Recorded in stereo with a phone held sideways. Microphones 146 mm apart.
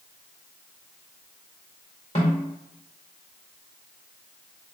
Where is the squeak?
No squeak in this recording.